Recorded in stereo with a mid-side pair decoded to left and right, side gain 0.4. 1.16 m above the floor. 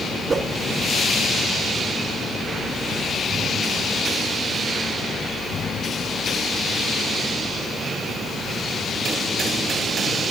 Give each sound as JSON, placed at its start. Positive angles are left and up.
{"t": 0.3, "sound": "a whoosh", "azimuth_deg": -45, "distance_m": 1.9}